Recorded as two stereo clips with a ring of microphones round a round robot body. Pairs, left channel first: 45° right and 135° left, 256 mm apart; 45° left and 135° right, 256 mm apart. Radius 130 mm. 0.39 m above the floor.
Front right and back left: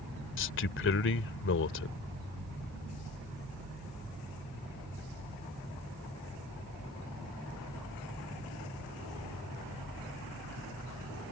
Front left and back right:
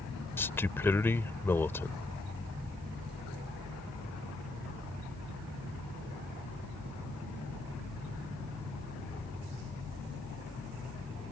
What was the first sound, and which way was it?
A man speaking, 35° right.